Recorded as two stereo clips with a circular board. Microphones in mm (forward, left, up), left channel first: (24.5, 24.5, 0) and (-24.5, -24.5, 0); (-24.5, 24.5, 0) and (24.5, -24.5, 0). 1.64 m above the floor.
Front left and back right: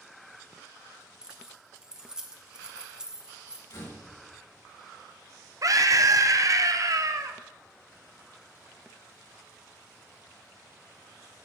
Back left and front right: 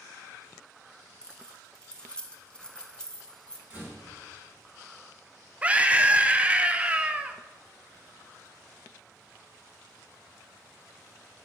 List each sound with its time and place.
1.2 s keys jangling: 175° left, 0.7 m
3.7 s a door slam: 20° left, 2.5 m
5.6 s a scream: 115° right, 0.6 m